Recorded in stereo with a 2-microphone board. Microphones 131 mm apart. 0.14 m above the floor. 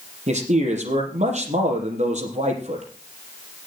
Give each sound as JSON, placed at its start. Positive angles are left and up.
{"t": 0.3, "sound": "a man speaking", "side_deg": -65, "distance_m": 5.0}